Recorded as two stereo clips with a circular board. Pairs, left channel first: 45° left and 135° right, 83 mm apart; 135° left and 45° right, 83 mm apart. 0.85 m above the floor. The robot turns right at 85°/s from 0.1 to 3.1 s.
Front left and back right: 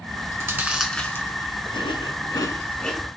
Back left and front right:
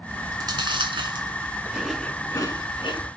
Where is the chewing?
115° right, 1.8 m; by 3.1 s 140° left, 1.8 m.